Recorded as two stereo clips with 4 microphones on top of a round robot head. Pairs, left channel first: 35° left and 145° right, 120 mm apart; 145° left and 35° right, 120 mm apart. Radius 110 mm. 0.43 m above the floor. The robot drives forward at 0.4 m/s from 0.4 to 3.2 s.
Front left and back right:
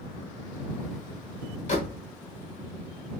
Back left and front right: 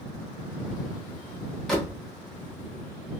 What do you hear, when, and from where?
1.7 s a door slam: 60° left, 1.5 m; by 2.0 s 65° left, 1.4 m